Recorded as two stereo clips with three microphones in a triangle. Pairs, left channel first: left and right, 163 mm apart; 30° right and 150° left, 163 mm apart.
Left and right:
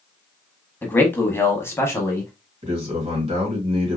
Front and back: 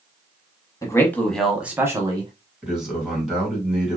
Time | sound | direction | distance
0.8 | a man speaking | 20° left | 1.1 m
2.6 | a man speaking | 125° right | 2 m